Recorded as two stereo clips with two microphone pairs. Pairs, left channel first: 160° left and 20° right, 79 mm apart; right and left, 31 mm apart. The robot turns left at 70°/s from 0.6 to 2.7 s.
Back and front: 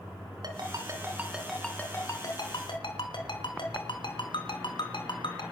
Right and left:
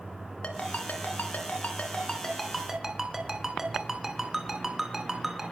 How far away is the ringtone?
About 3 m.